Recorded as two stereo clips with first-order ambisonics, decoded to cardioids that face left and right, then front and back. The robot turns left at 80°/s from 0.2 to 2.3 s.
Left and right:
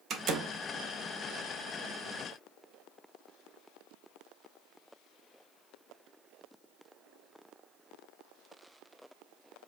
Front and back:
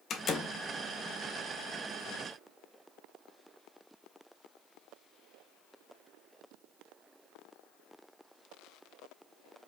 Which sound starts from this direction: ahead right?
A door slam, at 0.1 s.